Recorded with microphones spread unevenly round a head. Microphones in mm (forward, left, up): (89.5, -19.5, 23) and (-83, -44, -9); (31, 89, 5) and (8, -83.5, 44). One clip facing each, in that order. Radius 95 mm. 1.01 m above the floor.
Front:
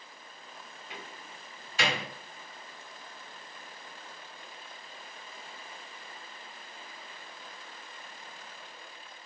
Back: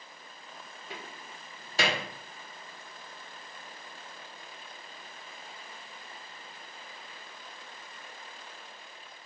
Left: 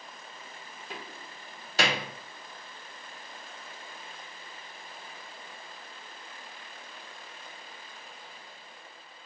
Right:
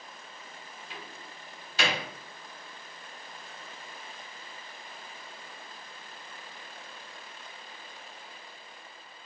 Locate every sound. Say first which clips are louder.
0.9 s a door slam: back 2 dB, left 4 dB; 130° left, 0.5 m